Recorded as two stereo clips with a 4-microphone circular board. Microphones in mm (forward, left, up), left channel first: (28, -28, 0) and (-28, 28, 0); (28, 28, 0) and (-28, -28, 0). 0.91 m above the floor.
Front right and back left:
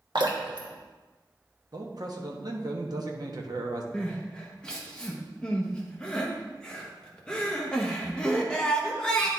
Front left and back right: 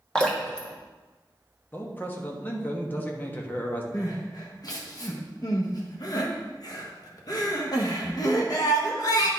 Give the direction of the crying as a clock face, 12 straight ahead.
11 o'clock.